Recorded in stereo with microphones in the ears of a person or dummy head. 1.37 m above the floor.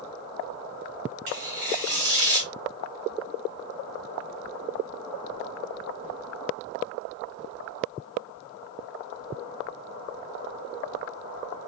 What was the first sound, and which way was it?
Tearing paper, 45° right (ahead or behind).